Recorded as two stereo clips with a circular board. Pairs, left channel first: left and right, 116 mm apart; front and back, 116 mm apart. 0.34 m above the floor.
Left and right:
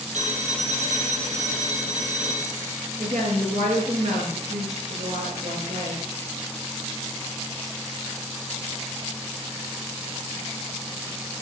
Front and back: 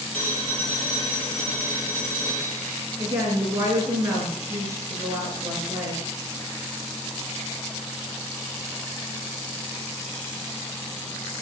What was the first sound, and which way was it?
A phone ringing, 80° right.